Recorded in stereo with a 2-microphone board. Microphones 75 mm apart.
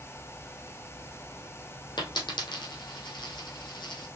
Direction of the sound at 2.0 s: 85° left.